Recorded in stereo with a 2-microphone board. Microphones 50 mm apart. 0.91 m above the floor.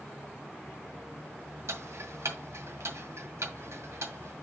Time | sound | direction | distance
1.7 | ticking | 75° right (ahead or behind) | 1.9 m